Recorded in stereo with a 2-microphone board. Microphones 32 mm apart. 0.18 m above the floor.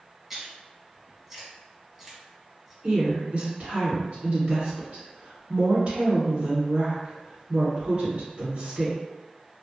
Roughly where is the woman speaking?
Right.